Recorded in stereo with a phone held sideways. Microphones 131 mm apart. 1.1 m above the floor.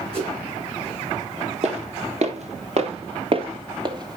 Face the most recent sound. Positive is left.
turn(degrees=-30)  # may be behind; listen again after turning